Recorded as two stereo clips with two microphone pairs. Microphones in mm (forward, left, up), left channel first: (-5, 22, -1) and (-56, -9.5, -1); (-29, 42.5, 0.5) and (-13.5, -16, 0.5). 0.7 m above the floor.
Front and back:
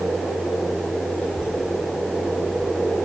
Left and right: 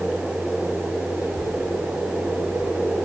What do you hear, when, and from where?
1.1 s a child speaking: 100° left, 7.5 m; by 3.0 s 75° left, 7 m